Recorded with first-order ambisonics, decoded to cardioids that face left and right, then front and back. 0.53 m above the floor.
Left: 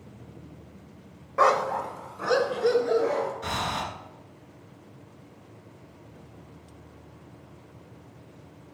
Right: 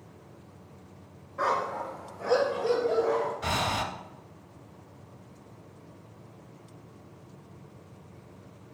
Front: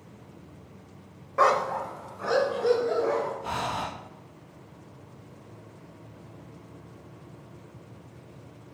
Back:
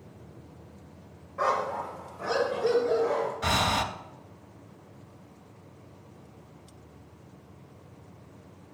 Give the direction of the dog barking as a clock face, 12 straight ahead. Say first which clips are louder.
Left 6 dB, front 5 dB; 10 o'clock.